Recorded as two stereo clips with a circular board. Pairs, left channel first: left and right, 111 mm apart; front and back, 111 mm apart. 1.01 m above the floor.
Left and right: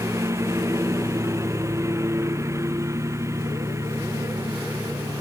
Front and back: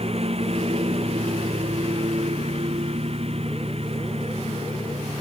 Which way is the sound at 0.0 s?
155° right.